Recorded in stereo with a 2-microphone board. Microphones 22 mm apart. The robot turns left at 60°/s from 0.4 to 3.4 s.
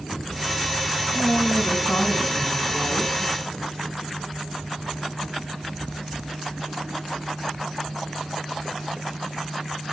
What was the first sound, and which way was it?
A woman speaking, 120° left.